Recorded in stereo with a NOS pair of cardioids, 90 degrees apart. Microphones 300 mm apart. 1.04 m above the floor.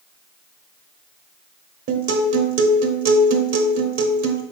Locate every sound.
1.9 s a guitar: 50° right, 1.3 m